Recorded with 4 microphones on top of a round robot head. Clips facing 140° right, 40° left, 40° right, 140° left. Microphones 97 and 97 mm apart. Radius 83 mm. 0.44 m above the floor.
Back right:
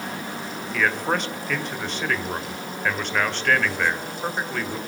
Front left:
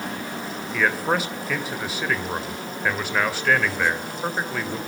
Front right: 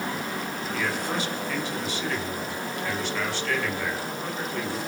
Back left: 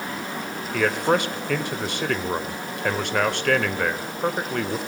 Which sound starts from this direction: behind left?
A man speaking, at 0.7 s.